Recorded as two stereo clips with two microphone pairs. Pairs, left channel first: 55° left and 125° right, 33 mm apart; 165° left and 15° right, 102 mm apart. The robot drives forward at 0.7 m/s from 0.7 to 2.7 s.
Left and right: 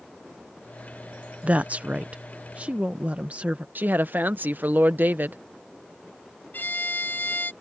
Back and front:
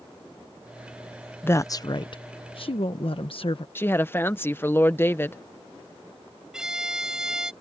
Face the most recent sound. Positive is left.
turn(degrees=70)